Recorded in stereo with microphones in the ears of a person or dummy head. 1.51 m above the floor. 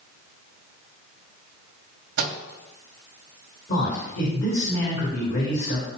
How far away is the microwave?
About 1.9 m.